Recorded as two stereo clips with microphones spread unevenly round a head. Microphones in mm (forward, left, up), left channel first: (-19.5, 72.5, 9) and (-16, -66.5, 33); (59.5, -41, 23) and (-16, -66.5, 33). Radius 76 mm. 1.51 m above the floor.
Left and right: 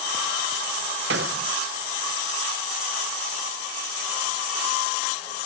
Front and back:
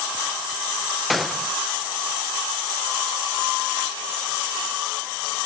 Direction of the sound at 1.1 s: 70° right.